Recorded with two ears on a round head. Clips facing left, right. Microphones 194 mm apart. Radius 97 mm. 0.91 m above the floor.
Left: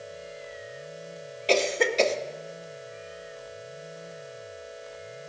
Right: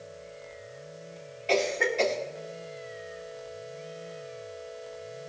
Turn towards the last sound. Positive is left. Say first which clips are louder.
# left 2 dB
turn(degrees=45)  # may be behind; listen again after turning